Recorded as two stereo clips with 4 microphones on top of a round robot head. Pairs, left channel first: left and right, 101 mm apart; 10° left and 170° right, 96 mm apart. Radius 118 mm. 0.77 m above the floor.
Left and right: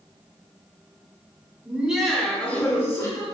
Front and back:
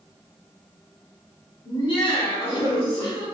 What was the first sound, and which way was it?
Laughter, 20° right.